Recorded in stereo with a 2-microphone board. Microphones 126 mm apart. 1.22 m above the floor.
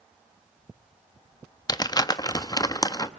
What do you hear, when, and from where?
1.7 s crumpling: 30° left (ahead or behind), 0.9 m